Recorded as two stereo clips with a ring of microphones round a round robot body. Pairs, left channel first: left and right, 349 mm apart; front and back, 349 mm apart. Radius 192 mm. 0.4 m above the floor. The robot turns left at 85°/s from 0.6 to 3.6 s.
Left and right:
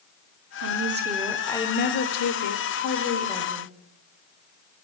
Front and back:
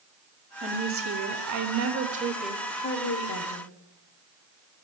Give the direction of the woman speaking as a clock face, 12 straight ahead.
4 o'clock.